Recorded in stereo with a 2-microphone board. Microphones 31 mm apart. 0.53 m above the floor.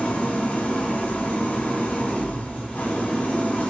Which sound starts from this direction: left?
An engine running, at 0.0 s.